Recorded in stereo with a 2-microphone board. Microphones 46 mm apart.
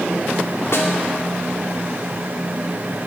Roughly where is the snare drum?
Left.